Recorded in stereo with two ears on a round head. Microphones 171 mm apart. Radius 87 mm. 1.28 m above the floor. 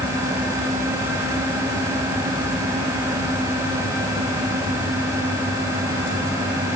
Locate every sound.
Only background noise.